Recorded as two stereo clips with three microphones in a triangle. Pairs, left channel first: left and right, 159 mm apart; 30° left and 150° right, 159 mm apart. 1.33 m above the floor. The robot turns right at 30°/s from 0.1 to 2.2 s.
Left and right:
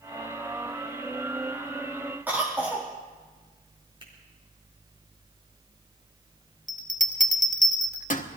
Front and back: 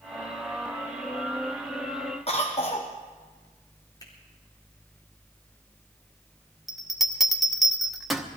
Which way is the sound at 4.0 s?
35° right.